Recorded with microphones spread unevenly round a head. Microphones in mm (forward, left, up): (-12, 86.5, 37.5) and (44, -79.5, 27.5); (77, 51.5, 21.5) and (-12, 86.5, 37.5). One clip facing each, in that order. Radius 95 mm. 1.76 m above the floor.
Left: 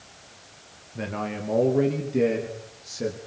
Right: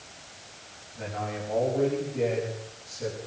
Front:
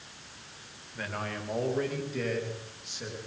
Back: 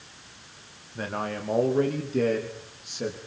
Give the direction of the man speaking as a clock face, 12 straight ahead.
9 o'clock.